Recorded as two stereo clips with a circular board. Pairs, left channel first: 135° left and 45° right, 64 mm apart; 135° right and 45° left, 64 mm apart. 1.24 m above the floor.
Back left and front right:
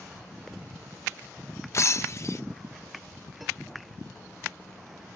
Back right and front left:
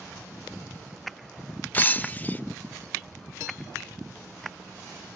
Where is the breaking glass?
165° left.